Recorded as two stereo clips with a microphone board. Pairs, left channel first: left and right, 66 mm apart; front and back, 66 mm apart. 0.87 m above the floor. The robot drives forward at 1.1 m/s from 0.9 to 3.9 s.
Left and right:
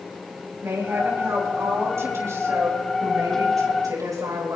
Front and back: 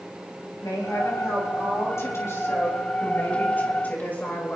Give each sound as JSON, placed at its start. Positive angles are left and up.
{"t": 0.6, "sound": "a woman speaking", "azimuth_deg": -40, "distance_m": 6.5}